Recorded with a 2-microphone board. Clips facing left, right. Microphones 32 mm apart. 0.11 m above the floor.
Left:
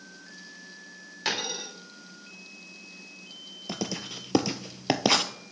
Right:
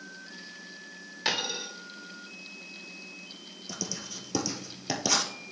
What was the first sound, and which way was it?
A dropped coin, 5° right (ahead or behind).